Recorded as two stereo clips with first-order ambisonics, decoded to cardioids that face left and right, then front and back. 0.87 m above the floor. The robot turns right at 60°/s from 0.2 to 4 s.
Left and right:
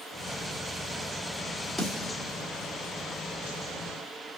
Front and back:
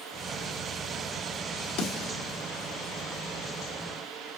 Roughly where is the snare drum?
Ahead.